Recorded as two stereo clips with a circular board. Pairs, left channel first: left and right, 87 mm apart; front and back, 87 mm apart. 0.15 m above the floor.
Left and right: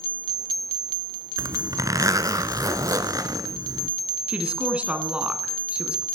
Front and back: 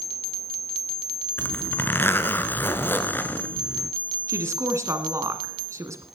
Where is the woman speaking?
160° right, 1.6 m.